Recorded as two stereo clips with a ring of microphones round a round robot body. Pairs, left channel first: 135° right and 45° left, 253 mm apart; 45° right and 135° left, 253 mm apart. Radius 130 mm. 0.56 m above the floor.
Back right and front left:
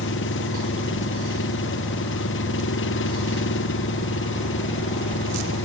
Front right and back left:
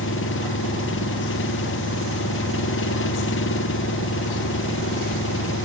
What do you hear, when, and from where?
0.0 s an engine running: 90° right